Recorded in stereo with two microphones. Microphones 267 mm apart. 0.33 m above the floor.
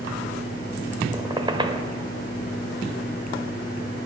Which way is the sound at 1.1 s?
20° right (ahead or behind).